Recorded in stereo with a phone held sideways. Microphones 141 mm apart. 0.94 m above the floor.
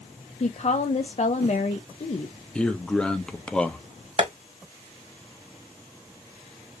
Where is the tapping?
45° right (ahead or behind), 1.4 m.